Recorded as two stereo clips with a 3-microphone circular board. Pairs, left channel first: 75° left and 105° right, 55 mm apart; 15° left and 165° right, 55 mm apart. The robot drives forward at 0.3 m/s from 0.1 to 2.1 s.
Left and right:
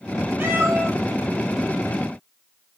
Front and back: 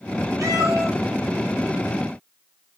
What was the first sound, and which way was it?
A cat meowing, 155° right.